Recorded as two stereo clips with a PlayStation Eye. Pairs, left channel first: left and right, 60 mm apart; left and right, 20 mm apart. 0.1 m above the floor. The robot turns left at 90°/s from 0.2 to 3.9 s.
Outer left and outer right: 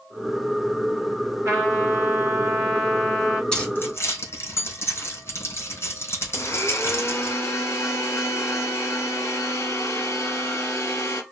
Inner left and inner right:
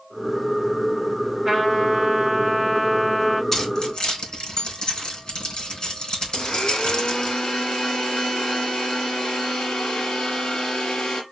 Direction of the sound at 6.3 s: 50° left (ahead or behind).